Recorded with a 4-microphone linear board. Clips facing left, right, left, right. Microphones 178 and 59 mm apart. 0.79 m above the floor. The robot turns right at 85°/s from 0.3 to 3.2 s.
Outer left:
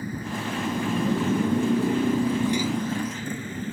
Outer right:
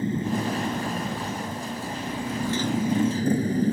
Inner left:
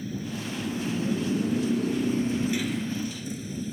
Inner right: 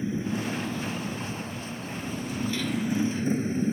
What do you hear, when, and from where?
0.0 s a motorcycle: 25° right; by 3.7 s 140° right